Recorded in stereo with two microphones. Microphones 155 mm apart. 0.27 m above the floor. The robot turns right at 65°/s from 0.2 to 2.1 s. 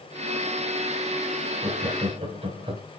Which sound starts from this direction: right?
Laughter, at 1.6 s.